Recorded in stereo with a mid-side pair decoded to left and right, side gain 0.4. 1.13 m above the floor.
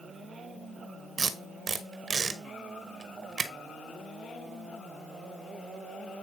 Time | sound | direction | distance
1.2 | tape being pulled | 50° right | 0.8 m